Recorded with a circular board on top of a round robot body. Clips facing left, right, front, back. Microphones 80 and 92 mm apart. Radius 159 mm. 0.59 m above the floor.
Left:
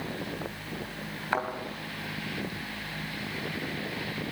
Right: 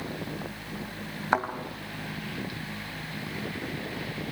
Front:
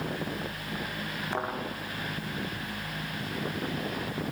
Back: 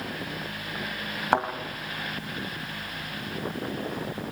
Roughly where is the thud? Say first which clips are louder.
Right 4 dB, back 9 dB; behind right.